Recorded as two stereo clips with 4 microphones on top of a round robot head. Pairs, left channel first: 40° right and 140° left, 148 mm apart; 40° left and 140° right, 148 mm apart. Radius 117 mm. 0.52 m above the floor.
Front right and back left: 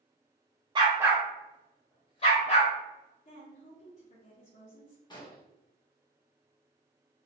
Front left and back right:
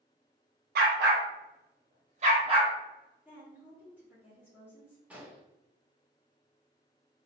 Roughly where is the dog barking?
Behind.